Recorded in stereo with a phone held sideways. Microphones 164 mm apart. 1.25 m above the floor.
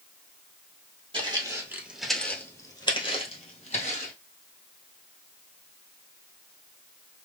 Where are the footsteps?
30° right (ahead or behind), 1.4 m; by 4.1 s 55° left (ahead or behind), 2 m.